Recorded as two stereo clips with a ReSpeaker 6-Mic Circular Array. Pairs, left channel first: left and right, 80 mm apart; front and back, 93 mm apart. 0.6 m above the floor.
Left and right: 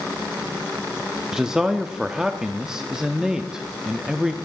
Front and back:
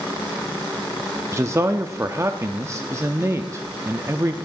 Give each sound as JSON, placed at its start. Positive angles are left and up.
{"t": 1.3, "sound": "a man speaking", "azimuth_deg": -165, "distance_m": 0.6}